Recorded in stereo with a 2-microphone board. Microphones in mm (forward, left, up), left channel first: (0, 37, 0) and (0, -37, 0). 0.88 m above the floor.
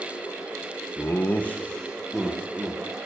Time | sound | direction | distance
1.0 | laughter | 40° left (ahead or behind) | 0.6 m